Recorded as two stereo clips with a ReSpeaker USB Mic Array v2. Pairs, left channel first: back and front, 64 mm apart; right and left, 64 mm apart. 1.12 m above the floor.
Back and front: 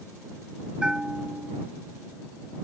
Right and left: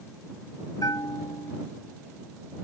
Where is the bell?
80° right.